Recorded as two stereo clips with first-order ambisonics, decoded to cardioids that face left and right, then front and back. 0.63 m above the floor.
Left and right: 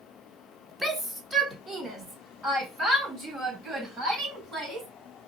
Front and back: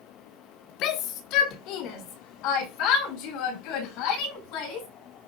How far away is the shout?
About 1.4 m.